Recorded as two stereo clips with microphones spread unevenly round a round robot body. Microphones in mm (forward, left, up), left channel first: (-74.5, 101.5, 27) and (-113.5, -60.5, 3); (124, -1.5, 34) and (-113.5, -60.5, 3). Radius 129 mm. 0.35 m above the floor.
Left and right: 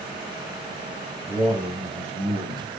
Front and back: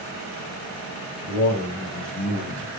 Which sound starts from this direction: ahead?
A man speaking, at 1.3 s.